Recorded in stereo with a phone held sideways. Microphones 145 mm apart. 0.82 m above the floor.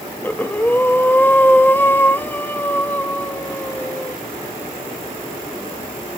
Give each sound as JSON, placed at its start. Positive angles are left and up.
{"t": 0.2, "sound": "breathing", "side_deg": 15, "distance_m": 0.8}